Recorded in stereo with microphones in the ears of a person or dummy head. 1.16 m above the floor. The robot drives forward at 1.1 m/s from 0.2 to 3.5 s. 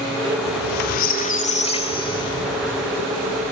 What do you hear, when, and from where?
0.5 s a squeak: 55° left (ahead or behind), 1.0 m; by 3.0 s 15° left (ahead or behind), 3 m